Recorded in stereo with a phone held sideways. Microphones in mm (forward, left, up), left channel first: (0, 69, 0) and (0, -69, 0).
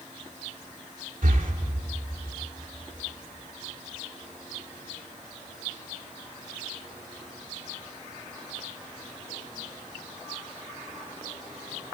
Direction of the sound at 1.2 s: 75° right (ahead or behind).